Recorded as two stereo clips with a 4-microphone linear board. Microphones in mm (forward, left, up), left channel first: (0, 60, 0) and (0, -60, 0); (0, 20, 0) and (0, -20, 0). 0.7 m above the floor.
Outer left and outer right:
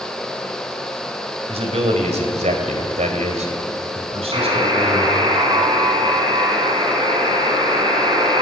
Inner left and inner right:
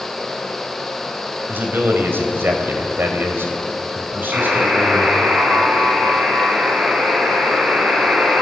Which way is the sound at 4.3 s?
45° right (ahead or behind).